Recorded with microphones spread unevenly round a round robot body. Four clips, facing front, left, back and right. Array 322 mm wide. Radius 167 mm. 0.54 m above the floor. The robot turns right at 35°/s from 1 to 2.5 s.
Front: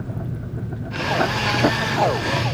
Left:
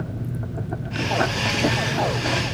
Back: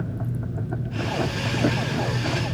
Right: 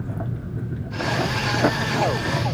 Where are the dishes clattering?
No dishes clattering in this recording.